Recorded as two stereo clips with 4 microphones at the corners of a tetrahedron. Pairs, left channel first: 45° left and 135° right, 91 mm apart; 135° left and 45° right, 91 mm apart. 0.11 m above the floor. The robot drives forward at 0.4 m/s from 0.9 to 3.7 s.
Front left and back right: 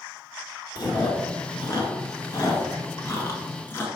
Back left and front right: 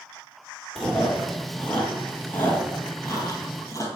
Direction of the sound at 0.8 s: 50° left.